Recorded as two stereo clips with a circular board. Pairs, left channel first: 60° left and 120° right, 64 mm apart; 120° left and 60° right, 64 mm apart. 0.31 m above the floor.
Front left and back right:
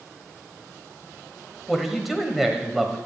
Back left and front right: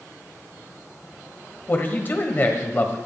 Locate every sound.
1.7 s a man speaking: 155° left, 1.3 m